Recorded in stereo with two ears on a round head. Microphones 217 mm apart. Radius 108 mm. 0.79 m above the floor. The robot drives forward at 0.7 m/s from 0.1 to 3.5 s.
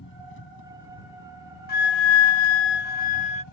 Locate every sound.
0.0 s an engine running: 50° left (ahead or behind); by 3.5 s 70° left (ahead or behind)
1.7 s a flute: 40° left (ahead or behind); by 3.4 s 25° left (ahead or behind)